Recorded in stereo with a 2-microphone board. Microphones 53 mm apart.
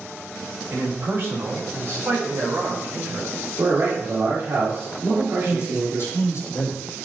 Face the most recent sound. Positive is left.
turn(degrees=65)  # may be behind; listen again after turning